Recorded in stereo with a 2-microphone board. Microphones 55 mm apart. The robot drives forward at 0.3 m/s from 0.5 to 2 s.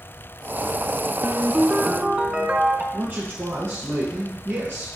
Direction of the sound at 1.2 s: 20° right (ahead or behind).